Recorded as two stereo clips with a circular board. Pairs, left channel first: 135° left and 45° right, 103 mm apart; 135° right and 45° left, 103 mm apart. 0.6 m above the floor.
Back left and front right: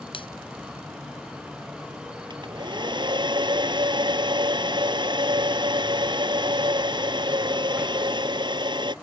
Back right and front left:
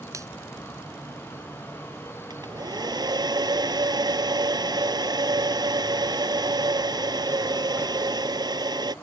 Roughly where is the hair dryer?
Ahead.